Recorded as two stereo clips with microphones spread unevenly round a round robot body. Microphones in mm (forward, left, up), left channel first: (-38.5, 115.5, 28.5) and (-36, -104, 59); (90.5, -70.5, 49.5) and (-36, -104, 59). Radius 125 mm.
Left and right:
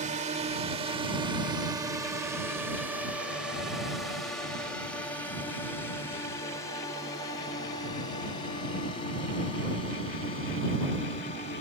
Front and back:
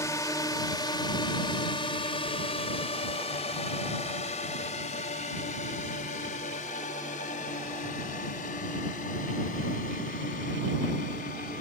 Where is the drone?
35° right; by 11.6 s 30° left.